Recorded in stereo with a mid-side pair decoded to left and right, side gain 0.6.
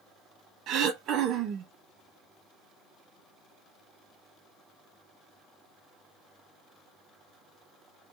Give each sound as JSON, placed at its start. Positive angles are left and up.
{"t": 0.7, "sound": "throat clearing", "azimuth_deg": -60, "distance_m": 1.1}